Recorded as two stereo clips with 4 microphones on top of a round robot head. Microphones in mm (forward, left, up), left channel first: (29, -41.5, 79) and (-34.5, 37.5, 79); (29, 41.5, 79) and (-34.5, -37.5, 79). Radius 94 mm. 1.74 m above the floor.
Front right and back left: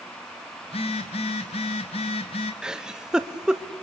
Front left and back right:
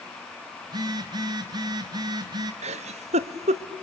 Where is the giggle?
150° right, 0.9 m.